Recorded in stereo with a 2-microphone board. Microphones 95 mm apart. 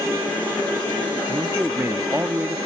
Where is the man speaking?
25° right (ahead or behind), 0.6 m.